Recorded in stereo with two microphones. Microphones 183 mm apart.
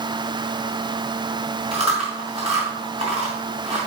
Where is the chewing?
35° right (ahead or behind), 3 m.